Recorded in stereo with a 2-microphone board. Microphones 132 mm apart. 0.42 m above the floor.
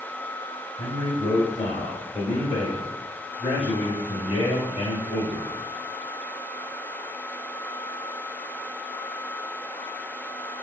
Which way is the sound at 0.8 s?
60° left (ahead or behind).